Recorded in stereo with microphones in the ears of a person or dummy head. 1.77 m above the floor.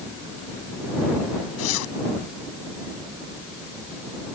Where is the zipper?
80° left.